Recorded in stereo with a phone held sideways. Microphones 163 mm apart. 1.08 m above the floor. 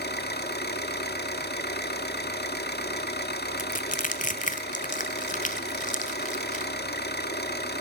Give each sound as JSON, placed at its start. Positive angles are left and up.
{"t": 0.0, "sound": "an engine running", "side_deg": 90, "distance_m": 1.7}
{"t": 3.6, "sound": "crushing", "side_deg": 50, "distance_m": 1.5}